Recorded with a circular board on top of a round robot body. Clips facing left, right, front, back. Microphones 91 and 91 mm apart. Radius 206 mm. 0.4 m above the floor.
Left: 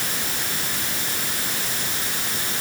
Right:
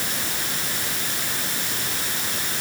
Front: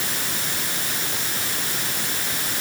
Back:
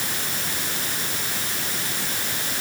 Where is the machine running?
No machine running in this recording.